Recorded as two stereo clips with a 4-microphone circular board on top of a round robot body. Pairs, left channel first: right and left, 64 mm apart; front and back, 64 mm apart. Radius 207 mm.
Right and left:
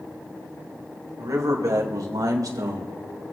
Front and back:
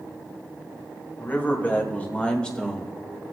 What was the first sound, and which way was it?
A man speaking, 60° left.